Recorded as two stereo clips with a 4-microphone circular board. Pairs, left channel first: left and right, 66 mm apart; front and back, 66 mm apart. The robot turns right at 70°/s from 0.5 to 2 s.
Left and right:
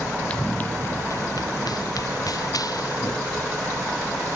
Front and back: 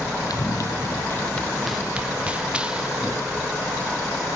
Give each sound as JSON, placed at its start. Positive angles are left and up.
{"t": 0.3, "sound": "running footsteps", "azimuth_deg": 20}